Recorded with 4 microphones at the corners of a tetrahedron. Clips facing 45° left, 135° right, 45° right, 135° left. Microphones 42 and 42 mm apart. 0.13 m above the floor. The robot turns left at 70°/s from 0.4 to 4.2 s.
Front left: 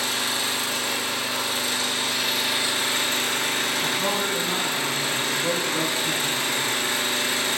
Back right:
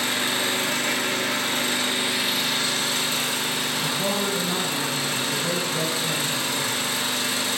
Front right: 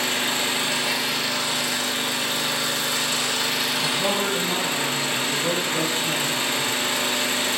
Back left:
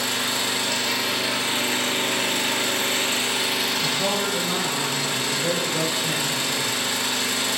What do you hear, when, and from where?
0.0 s an engine running: 90° right, 1.0 m; by 7.6 s 5° left, 1.0 m
3.8 s a man speaking: 105° left, 2 m; by 6.7 s 80° left, 2 m